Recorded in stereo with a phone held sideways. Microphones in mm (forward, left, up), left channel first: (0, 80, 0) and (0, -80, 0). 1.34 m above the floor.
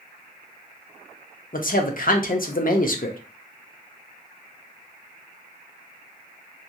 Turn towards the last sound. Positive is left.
turn(degrees=60)  # may be behind; listen again after turning